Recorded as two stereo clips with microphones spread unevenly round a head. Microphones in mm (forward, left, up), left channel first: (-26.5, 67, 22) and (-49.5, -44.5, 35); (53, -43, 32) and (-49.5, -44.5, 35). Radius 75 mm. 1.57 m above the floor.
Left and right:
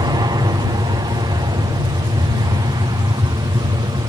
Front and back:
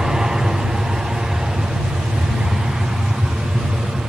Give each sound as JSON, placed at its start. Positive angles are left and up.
{"t": 0.0, "sound": "an aircraft", "azimuth_deg": -100}